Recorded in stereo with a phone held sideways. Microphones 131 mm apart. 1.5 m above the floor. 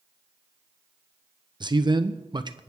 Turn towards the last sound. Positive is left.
turn(degrees=-35)  # may be behind; listen again after turning